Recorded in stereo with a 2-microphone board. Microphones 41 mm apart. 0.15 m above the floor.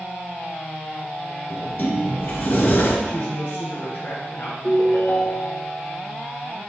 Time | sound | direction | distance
1.5 | a sliding door | 55° left (ahead or behind) | 1.9 m
3.0 | a man speaking | 45° left (ahead or behind) | 2.5 m
4.6 | a ringtone | 70° left (ahead or behind) | 2.5 m